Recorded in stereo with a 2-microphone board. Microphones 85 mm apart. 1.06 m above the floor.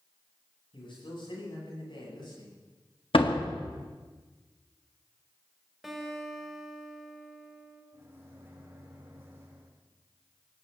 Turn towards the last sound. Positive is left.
turn(degrees=-30)  # may be behind; listen again after turning